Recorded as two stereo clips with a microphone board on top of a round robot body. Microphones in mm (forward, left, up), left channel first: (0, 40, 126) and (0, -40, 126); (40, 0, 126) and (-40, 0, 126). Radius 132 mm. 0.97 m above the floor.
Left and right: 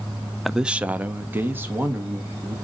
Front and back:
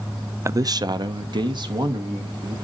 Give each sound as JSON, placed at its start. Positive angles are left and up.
{"t": 0.5, "sound": "a man speaking", "azimuth_deg": 180, "distance_m": 0.6}